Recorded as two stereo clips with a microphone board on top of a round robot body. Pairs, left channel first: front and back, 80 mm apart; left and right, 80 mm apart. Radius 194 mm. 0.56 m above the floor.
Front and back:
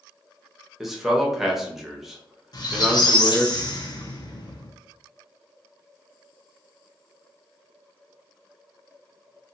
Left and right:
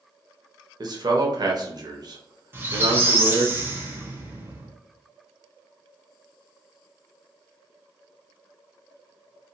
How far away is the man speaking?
About 0.9 m.